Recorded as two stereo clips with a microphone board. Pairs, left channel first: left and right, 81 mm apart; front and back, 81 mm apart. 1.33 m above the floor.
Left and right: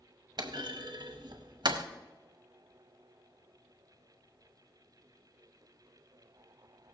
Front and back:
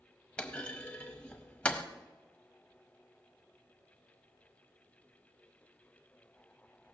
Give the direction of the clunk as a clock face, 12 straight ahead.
2 o'clock.